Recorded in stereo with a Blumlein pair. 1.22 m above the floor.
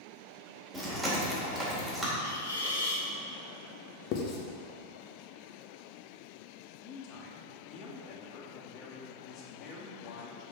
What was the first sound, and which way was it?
Chewing, 10° right.